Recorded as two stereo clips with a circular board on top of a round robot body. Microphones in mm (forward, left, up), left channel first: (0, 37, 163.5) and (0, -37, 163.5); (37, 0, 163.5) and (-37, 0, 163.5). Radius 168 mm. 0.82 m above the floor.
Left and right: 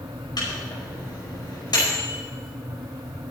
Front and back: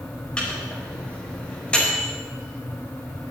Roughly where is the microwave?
Left.